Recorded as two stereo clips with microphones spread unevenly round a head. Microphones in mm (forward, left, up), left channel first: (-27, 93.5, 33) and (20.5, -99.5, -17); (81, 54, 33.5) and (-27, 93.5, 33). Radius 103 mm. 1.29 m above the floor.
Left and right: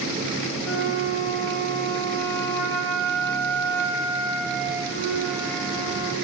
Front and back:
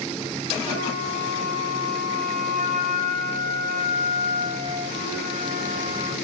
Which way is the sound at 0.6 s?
140° left.